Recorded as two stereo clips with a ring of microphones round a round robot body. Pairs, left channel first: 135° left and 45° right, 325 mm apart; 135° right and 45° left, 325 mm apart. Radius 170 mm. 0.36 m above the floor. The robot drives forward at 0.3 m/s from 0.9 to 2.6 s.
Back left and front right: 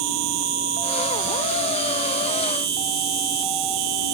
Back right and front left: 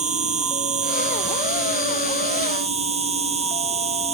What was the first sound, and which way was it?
An insect, 25° right.